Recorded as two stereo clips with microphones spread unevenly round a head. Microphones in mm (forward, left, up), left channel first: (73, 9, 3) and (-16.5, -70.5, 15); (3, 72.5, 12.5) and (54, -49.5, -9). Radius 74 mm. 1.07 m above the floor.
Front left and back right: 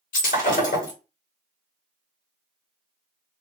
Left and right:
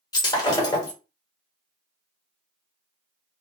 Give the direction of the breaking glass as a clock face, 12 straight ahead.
10 o'clock.